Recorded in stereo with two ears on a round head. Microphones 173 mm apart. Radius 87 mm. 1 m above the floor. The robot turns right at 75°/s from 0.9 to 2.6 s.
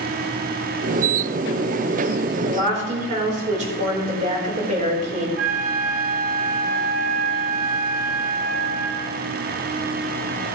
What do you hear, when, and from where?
2.4 s a woman speaking: 30° right (ahead or behind), 4 m; by 5.3 s 40° right (ahead or behind), 4 m
5.4 s a flute: 70° right (ahead or behind), 3.5 m